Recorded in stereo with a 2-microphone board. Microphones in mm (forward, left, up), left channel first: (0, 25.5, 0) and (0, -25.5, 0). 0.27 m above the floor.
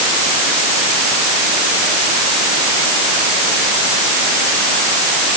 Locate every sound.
Only background noise.